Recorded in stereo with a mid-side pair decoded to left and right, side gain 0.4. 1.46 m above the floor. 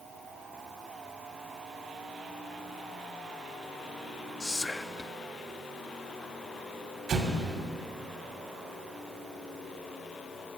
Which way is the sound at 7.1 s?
70° right.